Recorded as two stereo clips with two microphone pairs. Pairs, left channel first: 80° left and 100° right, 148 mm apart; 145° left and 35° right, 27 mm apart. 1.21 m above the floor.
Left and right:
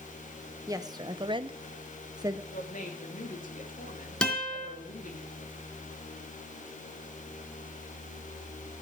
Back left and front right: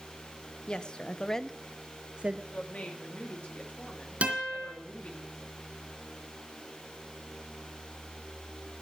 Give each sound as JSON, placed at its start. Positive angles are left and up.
{"t": 0.7, "sound": "a woman speaking", "azimuth_deg": -165, "distance_m": 1.2}
{"t": 2.5, "sound": "a woman speaking", "azimuth_deg": 105, "distance_m": 2.5}
{"t": 4.2, "sound": "a guitar", "azimuth_deg": -5, "distance_m": 3.5}